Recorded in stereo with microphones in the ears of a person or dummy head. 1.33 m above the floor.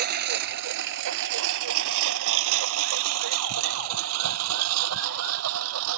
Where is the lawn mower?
55° right (ahead or behind); by 6.0 s 80° right.